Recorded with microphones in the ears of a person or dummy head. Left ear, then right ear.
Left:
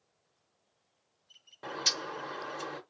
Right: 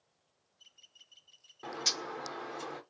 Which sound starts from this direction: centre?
A bird, at 1.6 s.